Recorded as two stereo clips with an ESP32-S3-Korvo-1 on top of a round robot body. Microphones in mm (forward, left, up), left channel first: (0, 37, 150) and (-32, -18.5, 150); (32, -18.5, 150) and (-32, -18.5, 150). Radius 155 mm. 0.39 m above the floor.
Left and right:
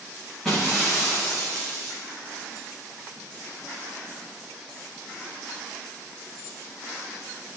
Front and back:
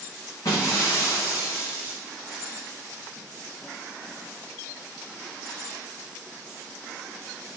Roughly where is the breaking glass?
Ahead right.